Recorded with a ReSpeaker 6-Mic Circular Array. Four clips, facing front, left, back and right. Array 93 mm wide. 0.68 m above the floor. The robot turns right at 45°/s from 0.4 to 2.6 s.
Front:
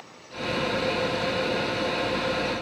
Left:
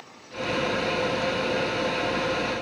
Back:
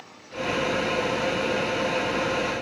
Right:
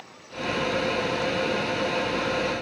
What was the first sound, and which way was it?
Only background noise.